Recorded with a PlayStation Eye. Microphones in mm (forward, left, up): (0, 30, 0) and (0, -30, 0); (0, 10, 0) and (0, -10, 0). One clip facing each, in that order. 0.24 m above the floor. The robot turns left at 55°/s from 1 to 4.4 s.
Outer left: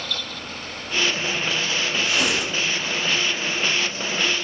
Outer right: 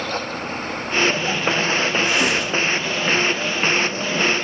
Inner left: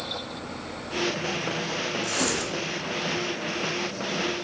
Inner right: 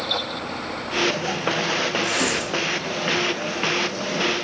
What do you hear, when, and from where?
2.0 s tearing paper: 15° right (ahead or behind), 0.9 m; by 2.6 s 10° left (ahead or behind), 0.9 m